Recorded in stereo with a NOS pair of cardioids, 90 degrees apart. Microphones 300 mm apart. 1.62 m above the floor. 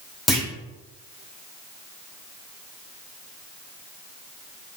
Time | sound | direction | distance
0.3 | a clunk | straight ahead | 1.3 m